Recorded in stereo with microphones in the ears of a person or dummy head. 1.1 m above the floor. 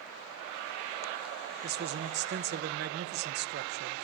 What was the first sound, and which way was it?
A man speaking, 50° right (ahead or behind).